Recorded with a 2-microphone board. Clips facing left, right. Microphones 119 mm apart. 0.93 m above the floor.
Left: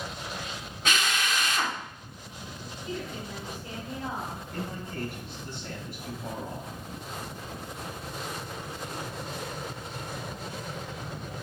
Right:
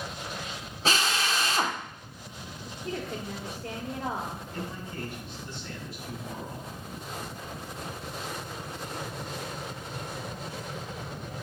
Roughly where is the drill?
Right.